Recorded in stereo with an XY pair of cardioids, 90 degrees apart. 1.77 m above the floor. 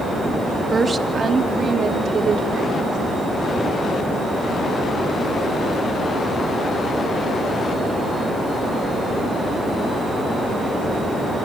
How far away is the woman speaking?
About 3 m.